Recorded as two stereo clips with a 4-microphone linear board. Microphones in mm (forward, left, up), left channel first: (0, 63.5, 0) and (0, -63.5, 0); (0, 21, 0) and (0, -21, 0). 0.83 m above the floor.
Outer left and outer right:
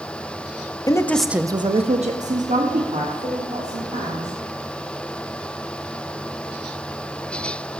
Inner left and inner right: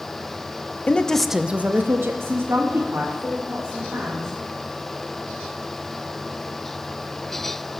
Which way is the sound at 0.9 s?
30° left (ahead or behind).